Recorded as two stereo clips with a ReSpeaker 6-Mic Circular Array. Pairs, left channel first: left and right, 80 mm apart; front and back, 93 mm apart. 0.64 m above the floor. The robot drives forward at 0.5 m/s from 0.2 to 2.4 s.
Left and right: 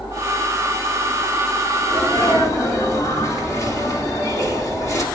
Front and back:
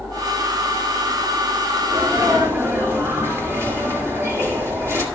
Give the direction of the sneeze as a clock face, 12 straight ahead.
8 o'clock.